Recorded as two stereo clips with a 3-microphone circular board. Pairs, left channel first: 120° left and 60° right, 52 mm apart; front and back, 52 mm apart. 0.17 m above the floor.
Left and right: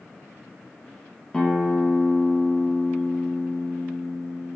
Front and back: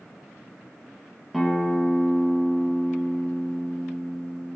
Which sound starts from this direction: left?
A guitar, at 1.3 s.